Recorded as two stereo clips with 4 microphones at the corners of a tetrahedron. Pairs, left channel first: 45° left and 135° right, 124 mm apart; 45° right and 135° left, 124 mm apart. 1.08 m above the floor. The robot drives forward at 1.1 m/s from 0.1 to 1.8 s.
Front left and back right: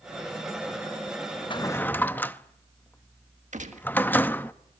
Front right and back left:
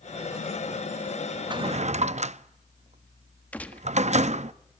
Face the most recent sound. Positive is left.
turn(degrees=-120)